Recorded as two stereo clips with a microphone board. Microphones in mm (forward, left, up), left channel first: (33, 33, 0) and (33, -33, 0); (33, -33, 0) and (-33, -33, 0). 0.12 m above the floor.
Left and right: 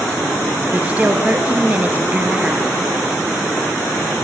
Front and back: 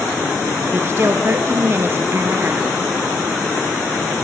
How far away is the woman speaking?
About 1.7 m.